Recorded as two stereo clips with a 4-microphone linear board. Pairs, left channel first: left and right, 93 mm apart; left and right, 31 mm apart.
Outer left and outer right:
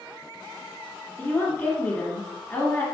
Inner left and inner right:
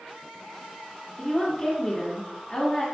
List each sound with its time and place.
1.2 s a woman speaking: 20° left (ahead or behind), 1.9 m